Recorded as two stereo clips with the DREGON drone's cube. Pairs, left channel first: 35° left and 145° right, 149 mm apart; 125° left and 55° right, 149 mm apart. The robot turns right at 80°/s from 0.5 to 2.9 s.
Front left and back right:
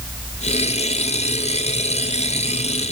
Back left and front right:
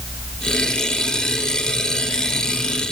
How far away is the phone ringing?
No phone ringing in this recording.